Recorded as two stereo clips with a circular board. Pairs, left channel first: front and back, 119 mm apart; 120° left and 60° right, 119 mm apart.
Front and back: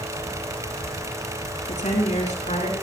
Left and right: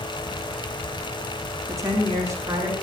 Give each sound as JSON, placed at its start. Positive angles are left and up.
{"t": 1.7, "sound": "a woman speaking", "azimuth_deg": 5, "distance_m": 6.0}